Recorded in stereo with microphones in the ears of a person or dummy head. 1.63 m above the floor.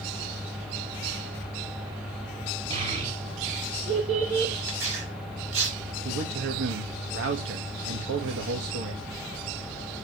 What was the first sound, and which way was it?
A child speaking, 40° right (ahead or behind).